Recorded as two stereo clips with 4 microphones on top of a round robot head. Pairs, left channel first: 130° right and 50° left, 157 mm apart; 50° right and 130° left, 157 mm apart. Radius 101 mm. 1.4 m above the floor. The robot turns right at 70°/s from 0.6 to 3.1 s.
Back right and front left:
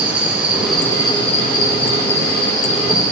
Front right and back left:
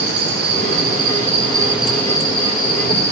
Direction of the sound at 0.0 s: 130° left.